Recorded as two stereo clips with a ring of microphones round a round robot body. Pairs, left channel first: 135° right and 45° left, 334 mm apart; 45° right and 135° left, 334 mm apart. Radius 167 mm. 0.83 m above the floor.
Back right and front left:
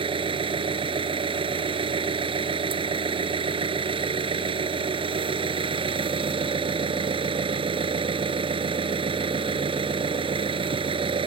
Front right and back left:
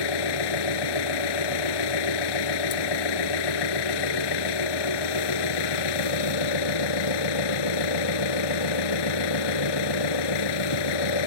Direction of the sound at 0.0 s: 30° right.